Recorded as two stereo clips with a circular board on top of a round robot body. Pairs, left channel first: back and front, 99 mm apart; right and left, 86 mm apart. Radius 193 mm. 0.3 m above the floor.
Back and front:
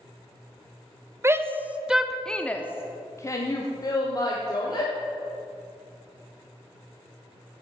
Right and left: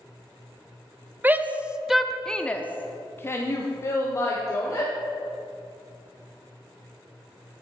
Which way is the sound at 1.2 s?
40° left.